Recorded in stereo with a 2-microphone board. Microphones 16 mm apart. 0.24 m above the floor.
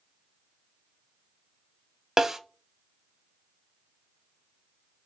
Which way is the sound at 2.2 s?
30° right (ahead or behind).